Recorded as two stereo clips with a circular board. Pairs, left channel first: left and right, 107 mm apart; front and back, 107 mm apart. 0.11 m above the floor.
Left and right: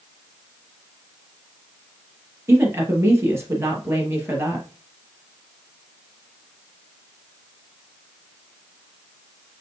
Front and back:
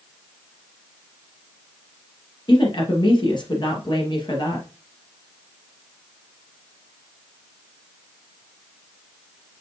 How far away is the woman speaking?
About 3 m.